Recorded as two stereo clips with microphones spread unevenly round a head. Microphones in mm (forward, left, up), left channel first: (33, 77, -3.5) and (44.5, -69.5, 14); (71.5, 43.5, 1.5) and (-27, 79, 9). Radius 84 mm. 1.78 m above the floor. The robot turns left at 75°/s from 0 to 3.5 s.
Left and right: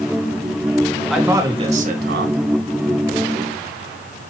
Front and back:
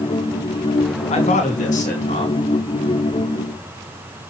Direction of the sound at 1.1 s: Straight ahead.